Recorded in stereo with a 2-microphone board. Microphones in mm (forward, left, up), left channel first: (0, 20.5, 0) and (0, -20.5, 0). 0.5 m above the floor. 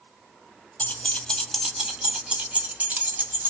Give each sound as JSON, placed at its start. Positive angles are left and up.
{"t": 0.8, "sound": "keys jangling", "side_deg": 40, "distance_m": 0.7}